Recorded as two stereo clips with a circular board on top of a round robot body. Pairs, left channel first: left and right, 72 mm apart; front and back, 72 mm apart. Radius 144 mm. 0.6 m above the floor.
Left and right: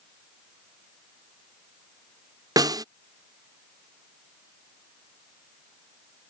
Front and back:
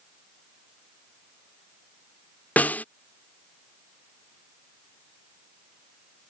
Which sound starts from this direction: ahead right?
A snare drum, at 2.6 s.